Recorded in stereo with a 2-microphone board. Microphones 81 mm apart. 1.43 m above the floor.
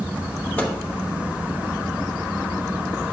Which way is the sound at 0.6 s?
15° left (ahead or behind).